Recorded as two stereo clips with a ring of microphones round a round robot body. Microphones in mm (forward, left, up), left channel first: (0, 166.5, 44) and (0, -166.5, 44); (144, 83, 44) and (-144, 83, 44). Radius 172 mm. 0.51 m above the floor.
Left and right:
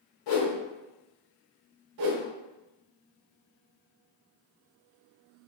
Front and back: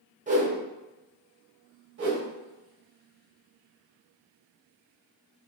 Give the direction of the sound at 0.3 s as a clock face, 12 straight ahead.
8 o'clock.